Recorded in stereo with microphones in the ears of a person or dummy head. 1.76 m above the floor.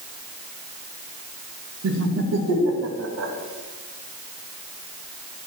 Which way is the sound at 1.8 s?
70° right (ahead or behind).